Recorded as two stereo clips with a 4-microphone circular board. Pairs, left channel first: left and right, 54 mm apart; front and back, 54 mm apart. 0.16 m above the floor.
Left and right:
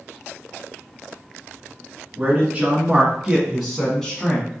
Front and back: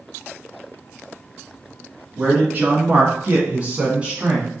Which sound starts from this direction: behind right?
A man speaking, at 2.2 s.